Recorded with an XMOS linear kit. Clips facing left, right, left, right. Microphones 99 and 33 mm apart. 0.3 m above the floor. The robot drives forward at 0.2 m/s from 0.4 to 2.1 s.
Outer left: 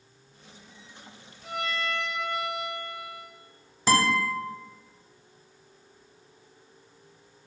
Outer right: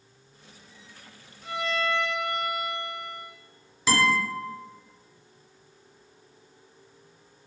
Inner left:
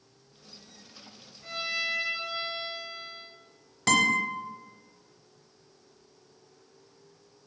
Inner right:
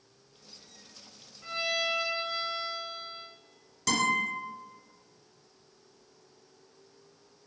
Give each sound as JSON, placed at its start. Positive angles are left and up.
{"t": 1.4, "sound": "a violin", "side_deg": -75, "distance_m": 1.7}
{"t": 3.9, "sound": "a guitar", "side_deg": 40, "distance_m": 0.7}